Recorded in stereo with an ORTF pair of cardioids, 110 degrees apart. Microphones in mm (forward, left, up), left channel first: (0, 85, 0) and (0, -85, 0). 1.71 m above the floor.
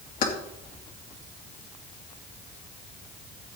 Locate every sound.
0.2 s keys jangling: 55° left, 2.5 m